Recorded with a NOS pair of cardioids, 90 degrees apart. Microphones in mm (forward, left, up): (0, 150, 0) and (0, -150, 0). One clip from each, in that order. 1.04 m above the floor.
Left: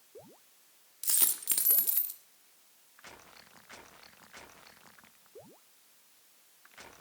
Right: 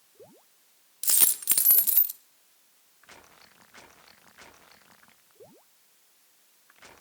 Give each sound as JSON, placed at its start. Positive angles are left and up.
{"t": 1.0, "sound": "a dropped coin", "azimuth_deg": -35, "distance_m": 0.9}